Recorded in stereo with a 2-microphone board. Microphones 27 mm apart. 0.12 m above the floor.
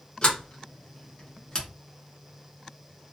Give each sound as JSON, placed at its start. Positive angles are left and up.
{"t": 0.2, "sound": "a sliding door", "side_deg": 30, "distance_m": 1.2}